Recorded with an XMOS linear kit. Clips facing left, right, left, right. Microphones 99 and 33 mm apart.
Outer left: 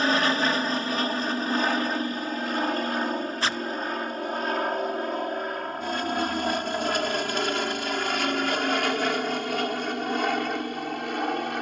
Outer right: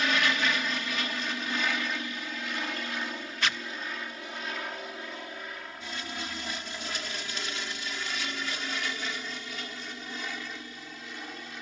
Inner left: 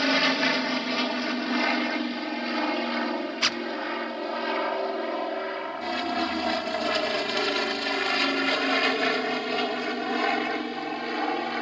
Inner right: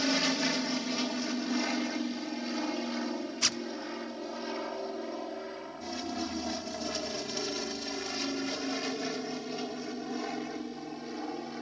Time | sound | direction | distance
0.0 | an aircraft | 35° left (ahead or behind) | ?
3.4 | a zipper | 35° left (ahead or behind) | ?